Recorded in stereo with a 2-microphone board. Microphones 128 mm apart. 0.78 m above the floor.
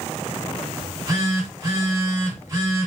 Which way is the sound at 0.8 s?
25° right (ahead or behind).